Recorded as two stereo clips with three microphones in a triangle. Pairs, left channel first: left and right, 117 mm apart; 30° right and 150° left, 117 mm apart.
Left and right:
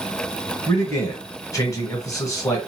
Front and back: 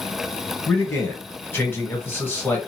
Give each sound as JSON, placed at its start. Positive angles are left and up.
{"t": 0.7, "sound": "a man speaking", "azimuth_deg": 35, "distance_m": 1.4}